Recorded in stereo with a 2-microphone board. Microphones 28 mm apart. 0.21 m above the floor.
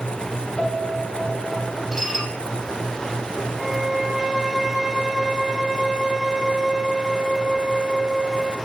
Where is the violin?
15° right (ahead or behind), 3.5 m.